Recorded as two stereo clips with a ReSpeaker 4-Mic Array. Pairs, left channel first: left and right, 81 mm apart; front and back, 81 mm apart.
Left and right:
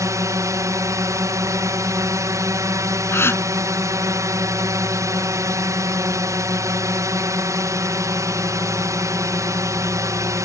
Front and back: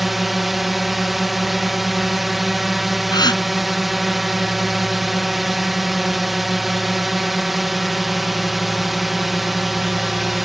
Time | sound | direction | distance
0.0 | a drone | 90° right | ?
3.1 | a gasp | 30° left | ?